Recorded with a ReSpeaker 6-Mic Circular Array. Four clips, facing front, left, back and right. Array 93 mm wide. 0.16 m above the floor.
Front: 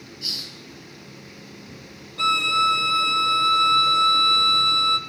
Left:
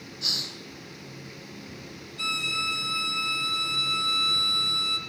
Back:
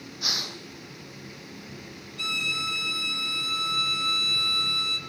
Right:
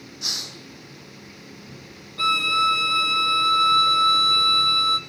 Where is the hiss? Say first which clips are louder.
Even, back 7 dB; 165° right, 1.3 m.